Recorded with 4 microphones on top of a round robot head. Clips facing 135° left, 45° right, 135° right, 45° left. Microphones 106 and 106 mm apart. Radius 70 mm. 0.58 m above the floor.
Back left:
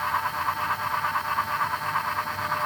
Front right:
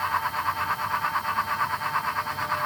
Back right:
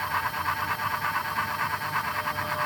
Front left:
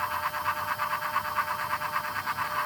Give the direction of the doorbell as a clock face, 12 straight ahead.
I don't hear a doorbell.